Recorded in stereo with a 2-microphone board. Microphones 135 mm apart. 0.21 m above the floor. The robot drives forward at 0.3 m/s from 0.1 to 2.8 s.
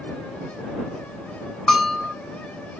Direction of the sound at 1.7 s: Centre (ahead or behind).